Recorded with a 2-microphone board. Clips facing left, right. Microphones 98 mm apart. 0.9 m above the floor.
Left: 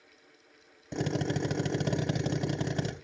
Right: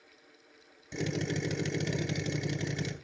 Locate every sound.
0.9 s a drill: 50° left (ahead or behind), 2.5 m